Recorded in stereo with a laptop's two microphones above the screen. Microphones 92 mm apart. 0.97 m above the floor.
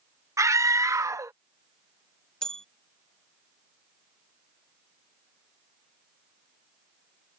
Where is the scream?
35° right (ahead or behind).